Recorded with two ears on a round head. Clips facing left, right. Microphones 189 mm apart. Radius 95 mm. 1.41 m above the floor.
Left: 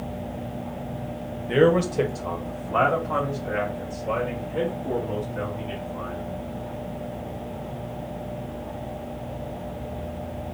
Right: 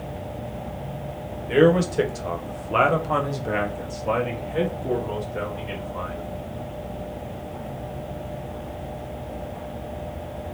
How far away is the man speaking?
About 0.9 m.